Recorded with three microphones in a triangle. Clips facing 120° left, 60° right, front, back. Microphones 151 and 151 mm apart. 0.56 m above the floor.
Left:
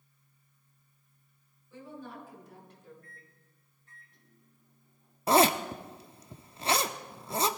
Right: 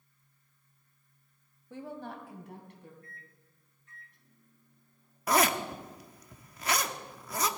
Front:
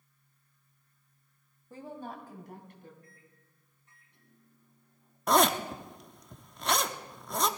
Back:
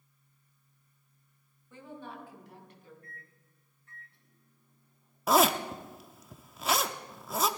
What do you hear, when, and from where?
1.7 s a woman speaking: 50° right, 2.5 m; by 2.9 s 40° right, 4 m
3.0 s a microwave: 70° left, 4 m
5.3 s a zipper: 100° left, 0.7 m